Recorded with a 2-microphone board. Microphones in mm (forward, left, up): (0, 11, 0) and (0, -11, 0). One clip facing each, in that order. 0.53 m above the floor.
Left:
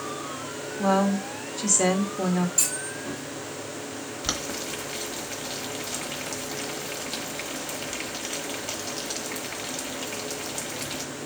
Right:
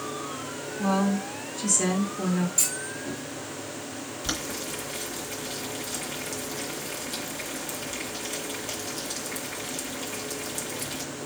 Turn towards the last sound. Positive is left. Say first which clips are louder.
# left 2 dB
turn(degrees=35)  # may be behind; listen again after turning